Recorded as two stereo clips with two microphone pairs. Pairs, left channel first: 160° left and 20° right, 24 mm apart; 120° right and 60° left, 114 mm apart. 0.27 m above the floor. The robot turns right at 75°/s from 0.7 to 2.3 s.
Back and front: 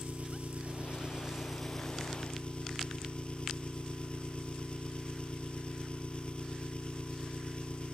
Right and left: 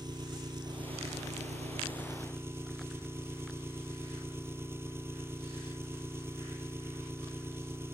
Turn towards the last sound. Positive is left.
turn(degrees=130)